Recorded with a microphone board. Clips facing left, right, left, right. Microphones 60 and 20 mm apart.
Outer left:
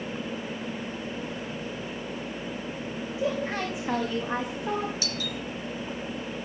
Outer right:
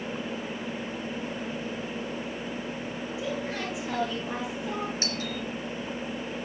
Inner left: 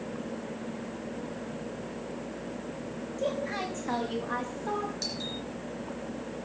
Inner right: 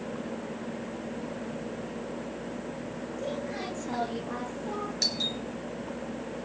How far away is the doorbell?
About 2.5 m.